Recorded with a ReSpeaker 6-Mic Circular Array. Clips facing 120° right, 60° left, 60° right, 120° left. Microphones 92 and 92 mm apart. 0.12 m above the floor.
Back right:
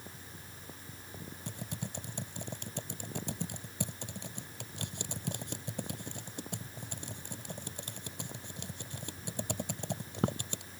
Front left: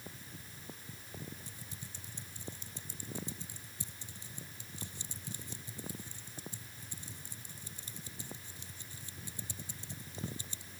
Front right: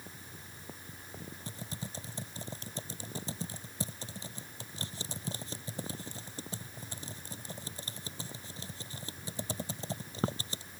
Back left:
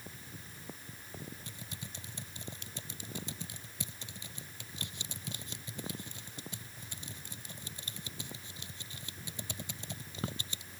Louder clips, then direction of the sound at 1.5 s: Back right 9 dB, front right 5 dB; 110° right.